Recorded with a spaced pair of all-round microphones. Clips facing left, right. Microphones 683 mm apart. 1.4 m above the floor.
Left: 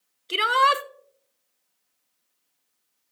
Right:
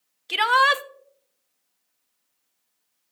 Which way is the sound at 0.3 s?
25° right (ahead or behind).